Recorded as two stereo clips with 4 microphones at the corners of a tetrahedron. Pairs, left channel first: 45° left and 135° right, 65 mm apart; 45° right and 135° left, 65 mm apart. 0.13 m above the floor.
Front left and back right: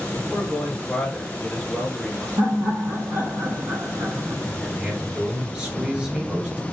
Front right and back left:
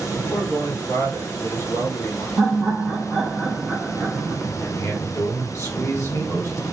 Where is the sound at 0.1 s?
35° right, 2.5 m.